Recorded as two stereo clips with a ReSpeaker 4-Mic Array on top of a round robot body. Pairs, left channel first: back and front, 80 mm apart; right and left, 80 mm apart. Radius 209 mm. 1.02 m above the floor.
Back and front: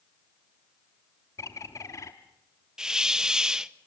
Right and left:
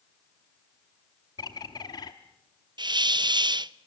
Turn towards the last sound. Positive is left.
turn(degrees=80)